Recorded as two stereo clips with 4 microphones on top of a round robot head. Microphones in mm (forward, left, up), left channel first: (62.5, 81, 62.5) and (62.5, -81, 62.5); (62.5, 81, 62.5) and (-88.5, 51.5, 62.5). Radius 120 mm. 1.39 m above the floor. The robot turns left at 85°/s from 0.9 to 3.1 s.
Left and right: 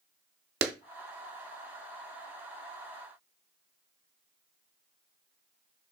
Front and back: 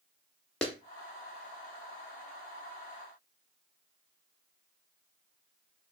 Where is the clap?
75° right, 0.5 m.